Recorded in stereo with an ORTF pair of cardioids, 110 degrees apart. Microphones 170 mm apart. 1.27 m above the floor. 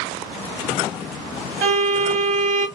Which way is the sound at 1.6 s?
55° right.